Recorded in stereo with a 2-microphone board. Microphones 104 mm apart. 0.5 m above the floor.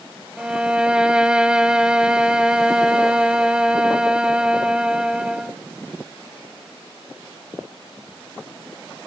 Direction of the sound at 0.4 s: 10° right (ahead or behind).